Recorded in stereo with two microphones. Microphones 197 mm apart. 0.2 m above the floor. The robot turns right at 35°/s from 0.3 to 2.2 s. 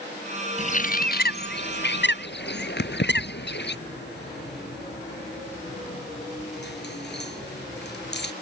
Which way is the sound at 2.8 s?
70° left (ahead or behind).